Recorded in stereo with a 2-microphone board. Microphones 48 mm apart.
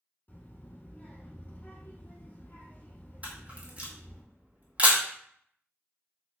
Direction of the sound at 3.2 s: 30° right (ahead or behind).